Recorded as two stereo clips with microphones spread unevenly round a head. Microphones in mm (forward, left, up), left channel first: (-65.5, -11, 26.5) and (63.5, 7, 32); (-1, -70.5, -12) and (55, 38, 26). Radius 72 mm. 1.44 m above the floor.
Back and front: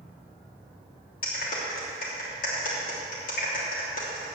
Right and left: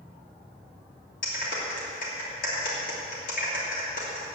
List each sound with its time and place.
1.2 s a clap: 150° right, 3 m